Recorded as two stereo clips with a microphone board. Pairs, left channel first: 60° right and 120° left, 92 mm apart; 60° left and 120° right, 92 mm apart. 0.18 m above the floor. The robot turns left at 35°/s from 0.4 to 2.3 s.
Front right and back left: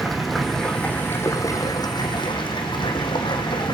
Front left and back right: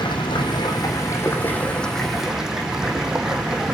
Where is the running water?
30° left, 2.5 m; by 3.7 s 35° right, 2.5 m.